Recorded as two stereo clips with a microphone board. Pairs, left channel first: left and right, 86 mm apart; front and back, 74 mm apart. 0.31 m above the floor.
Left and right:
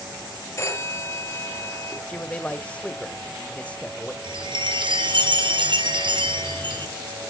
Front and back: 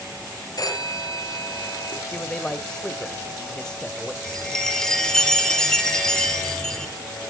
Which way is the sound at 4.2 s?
80° right.